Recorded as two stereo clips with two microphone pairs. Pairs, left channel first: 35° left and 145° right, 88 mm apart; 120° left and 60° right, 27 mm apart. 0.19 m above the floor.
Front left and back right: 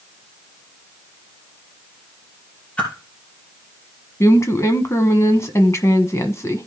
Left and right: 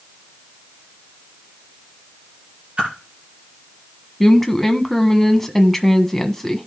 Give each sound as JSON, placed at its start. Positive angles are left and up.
{"t": 2.8, "sound": "a whoosh", "azimuth_deg": -40, "distance_m": 4.0}
{"t": 4.2, "sound": "a woman speaking", "azimuth_deg": 45, "distance_m": 1.3}